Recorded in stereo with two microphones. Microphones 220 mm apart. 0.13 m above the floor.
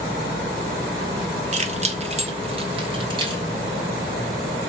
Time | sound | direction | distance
1.5 | keys jangling | 30° right (ahead or behind) | 0.8 m